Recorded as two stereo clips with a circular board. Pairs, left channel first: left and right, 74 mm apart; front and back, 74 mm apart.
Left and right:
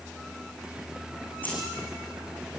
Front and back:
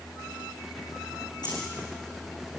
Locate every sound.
1.4 s keys jangling: 25° left, 7 m